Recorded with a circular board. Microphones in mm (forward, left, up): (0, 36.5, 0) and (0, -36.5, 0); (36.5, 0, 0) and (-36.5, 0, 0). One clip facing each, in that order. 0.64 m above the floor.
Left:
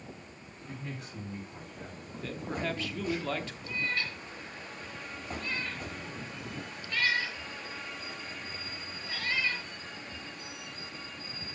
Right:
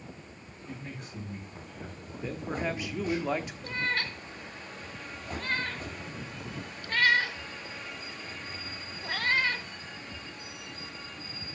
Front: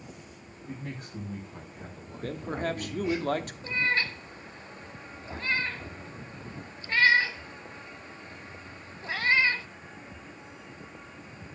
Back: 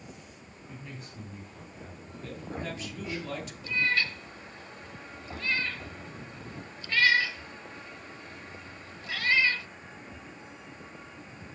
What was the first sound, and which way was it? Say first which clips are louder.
A man speaking: even, front 6 dB; straight ahead.